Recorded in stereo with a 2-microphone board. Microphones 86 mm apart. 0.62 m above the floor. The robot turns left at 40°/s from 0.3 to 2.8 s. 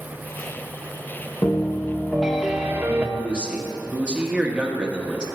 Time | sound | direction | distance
1.4 | a piano | 30° left | 0.6 m
3.2 | a man speaking | 10° right (ahead or behind) | 1.0 m